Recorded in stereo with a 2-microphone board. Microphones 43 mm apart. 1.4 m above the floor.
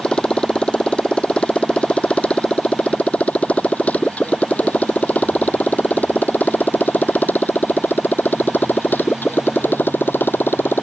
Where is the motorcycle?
25° left (ahead or behind); by 10.8 s 55° left (ahead or behind).